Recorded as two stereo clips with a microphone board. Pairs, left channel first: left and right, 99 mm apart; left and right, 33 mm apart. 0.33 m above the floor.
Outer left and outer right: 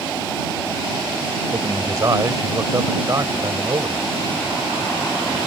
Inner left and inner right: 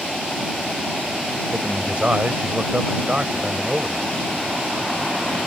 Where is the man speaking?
40° right (ahead or behind).